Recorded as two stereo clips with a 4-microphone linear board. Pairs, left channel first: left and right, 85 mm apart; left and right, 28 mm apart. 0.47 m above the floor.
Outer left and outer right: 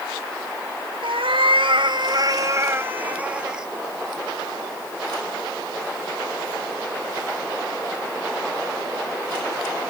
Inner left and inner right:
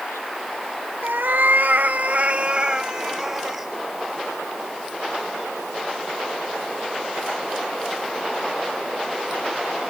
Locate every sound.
1.0 s a cat meowing: 80° right, 1.0 m; by 3.7 s 5° right (ahead or behind), 1.4 m